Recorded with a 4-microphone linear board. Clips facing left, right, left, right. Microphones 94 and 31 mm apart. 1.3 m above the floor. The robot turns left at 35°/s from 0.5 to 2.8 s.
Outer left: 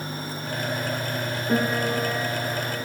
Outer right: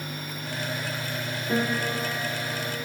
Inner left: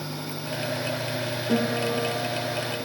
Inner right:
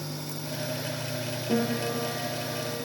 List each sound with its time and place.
1.5 s a piano: 25° left, 3.5 m; by 2.9 s 25° right, 3.5 m